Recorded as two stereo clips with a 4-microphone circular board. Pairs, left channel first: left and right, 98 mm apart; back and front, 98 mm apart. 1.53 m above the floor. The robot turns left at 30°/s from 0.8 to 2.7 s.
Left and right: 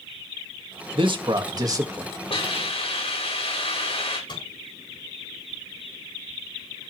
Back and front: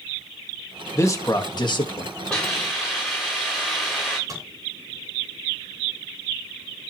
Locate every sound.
0.9 s a man speaking: 120° right, 2 m; by 2.1 s 155° right, 2 m
2.3 s a hiss: 100° left, 7 m; by 4.2 s 85° left, 7 m
4.3 s a microwave: 55° left, 5.5 m